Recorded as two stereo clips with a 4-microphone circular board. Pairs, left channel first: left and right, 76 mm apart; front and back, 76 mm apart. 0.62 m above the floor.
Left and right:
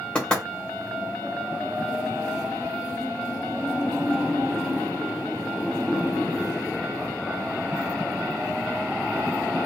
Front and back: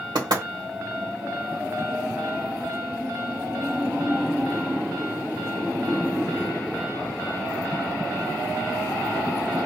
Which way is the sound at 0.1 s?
165° left.